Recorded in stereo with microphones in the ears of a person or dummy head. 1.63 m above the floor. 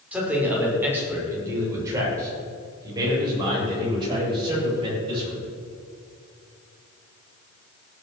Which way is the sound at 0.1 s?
10° right (ahead or behind).